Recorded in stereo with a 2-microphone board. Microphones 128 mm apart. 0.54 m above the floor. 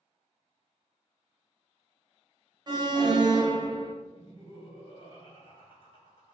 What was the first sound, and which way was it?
An alarm, 35° right (ahead or behind).